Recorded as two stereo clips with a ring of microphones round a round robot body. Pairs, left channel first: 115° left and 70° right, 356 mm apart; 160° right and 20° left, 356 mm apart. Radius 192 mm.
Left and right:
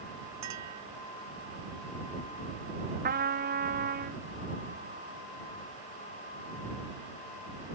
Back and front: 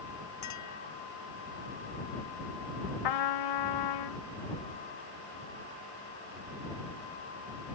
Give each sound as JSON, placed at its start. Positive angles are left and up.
{"t": 0.4, "sound": "a clink", "azimuth_deg": -115}
{"t": 3.0, "sound": "a trumpet", "azimuth_deg": -135}